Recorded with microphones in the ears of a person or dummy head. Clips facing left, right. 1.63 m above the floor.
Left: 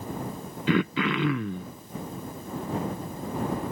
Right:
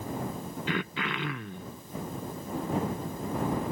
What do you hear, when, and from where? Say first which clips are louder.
0.7 s throat clearing: left 10 dB; 75° left (ahead or behind)